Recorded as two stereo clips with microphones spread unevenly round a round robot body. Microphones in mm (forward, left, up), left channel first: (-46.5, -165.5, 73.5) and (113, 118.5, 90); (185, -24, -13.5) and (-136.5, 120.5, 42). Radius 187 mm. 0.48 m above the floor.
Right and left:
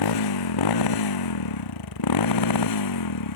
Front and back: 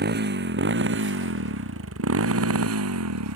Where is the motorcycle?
140° right; by 3.4 s 150° right.